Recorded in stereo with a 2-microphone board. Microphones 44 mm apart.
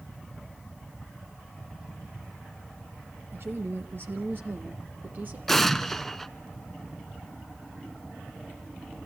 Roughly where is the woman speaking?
Right.